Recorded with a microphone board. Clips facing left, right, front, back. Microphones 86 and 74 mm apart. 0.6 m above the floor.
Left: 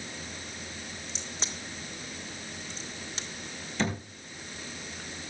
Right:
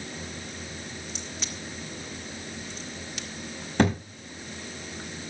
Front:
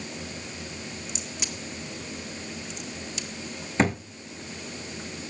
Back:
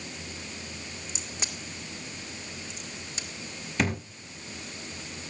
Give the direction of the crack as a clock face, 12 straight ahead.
7 o'clock.